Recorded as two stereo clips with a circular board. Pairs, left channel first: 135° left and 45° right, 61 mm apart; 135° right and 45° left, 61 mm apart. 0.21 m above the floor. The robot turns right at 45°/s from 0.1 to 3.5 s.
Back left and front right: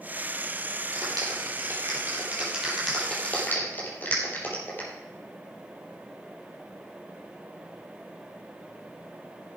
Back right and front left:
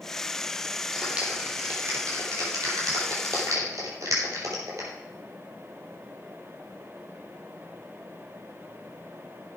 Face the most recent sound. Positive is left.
turn(degrees=75)